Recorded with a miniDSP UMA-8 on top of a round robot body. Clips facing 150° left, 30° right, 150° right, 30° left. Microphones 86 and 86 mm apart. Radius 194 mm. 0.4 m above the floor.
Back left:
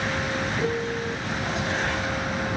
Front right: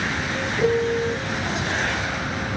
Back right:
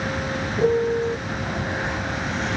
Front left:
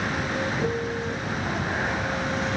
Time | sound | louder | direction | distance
0.6 | a piano | front right 6 dB, back right 7 dB | 95° right | ?